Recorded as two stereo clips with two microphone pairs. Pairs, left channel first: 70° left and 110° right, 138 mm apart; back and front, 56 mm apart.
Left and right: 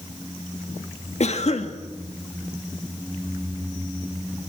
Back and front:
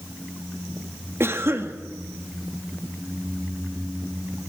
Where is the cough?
40° left, 2 m.